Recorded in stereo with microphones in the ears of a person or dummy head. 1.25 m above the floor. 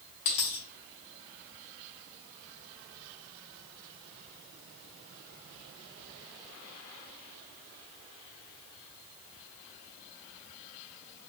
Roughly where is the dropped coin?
Left.